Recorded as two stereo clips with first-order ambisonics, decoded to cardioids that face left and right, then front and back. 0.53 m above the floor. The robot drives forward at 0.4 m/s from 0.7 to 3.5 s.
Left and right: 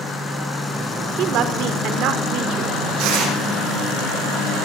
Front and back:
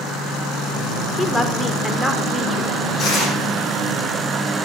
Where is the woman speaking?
70° right, 1.5 m; by 2.8 s 100° right, 1.4 m.